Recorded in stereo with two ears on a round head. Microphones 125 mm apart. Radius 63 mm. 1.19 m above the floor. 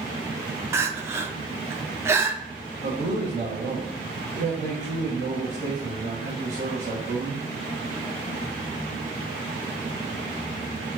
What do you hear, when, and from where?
0.7 s crying: 20° right (ahead or behind), 0.5 m
2.8 s a man speaking: 55° right (ahead or behind), 1.7 m